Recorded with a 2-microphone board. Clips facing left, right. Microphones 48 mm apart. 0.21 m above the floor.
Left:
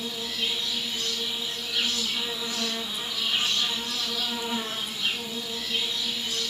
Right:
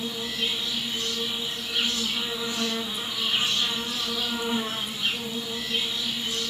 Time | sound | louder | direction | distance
0.0 | an insect | right 1 dB | 15° right (ahead or behind) | 1.1 m